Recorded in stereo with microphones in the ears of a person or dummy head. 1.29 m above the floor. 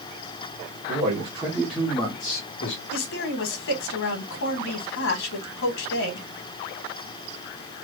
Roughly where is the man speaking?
Right.